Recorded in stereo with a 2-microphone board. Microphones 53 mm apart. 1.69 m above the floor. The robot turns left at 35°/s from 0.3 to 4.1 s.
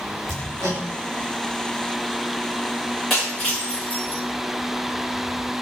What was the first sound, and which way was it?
Hammering, 60° right (ahead or behind).